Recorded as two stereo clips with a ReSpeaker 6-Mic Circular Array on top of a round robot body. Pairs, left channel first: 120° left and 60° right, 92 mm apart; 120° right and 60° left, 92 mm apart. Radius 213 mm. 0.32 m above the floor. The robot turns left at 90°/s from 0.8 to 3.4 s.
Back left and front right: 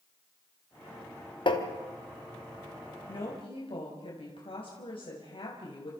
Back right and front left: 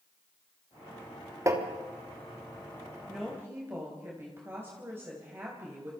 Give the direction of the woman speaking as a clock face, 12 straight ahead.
7 o'clock.